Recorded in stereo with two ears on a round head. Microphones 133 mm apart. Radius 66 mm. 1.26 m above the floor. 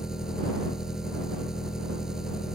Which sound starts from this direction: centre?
An engine running, at 0.0 s.